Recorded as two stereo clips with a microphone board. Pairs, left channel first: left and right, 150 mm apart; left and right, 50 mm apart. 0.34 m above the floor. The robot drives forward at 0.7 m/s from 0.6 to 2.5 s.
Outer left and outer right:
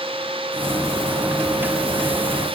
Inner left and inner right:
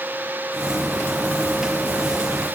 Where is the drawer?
No drawer in this recording.